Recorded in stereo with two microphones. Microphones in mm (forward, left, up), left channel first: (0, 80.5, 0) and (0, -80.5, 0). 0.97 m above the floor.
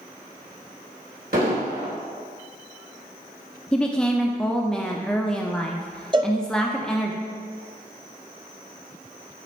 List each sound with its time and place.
1.3 s an explosion: 70° right (ahead or behind), 2.5 m
3.7 s a woman speaking: 5° left (ahead or behind), 0.6 m
6.1 s a cowbell: 30° right (ahead or behind), 0.7 m